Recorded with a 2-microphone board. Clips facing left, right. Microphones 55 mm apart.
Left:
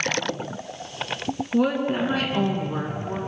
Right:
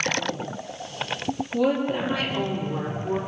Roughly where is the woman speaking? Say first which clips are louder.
Left 1 dB; left.